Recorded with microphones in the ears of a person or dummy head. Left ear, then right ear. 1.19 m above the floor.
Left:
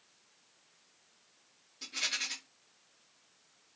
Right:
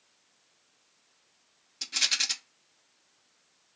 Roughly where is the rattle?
Right.